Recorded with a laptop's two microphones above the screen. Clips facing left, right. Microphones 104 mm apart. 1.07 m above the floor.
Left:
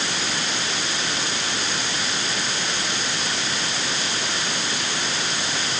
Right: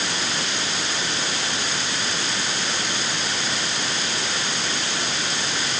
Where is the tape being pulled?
I don't hear tape being pulled.